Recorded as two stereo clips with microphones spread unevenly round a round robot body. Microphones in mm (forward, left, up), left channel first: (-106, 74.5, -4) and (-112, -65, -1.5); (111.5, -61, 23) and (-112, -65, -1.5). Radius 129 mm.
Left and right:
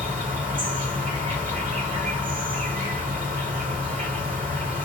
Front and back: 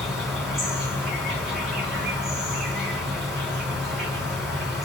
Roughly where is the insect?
Right.